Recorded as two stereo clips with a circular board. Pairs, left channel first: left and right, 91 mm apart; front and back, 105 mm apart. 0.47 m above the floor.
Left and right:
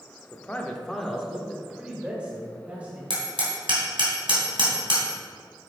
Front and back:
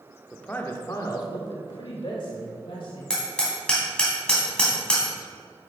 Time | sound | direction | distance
0.3 | a man speaking | 70° left | 0.9 m
3.1 | hammering | 80° right | 3 m